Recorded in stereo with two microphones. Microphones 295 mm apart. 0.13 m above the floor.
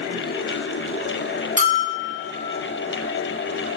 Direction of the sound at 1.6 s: 65° right (ahead or behind).